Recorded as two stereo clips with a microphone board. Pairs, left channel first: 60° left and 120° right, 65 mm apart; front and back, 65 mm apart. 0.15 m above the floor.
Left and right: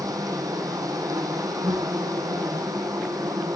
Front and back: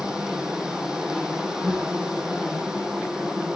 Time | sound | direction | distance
0.0 | an insect | 100° right | 1.0 m